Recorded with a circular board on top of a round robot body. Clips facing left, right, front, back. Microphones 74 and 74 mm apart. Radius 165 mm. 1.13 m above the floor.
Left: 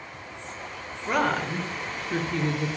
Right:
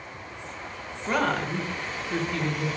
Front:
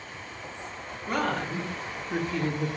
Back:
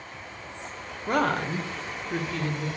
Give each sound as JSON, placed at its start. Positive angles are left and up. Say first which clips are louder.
{"t": 1.1, "sound": "a woman speaking", "louder": "left 1 dB, back 4 dB", "azimuth_deg": 180, "distance_m": 1.0}